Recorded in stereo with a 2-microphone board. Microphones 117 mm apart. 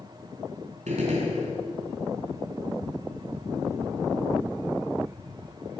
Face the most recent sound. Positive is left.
turn(degrees=-80)